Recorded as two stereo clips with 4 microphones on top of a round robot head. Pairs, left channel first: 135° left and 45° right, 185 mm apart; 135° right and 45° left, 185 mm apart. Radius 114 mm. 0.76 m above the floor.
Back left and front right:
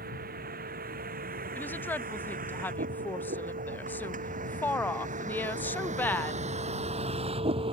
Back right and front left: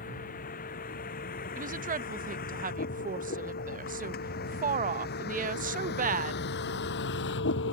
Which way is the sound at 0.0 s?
85° right.